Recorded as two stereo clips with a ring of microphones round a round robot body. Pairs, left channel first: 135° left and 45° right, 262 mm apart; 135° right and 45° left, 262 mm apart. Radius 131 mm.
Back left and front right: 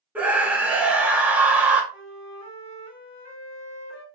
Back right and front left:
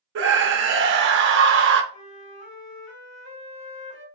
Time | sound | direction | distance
0.1 | a scream | 35° left | 0.6 m
1.9 | a flute | 145° right | 2.5 m